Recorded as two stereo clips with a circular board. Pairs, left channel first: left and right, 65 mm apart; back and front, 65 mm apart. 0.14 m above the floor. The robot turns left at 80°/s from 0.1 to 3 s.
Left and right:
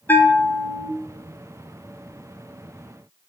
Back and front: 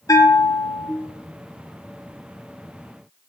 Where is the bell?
150° left, 0.7 m; by 0.9 s 85° left, 0.7 m.